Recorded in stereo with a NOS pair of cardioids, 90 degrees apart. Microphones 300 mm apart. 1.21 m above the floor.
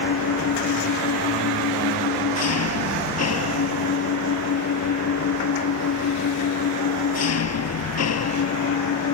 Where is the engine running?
55° left.